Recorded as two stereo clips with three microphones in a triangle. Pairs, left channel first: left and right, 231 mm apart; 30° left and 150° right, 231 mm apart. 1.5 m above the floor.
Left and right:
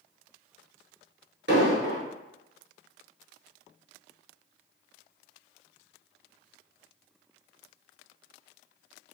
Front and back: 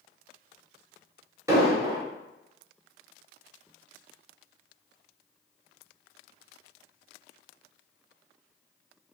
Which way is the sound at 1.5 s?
75° right.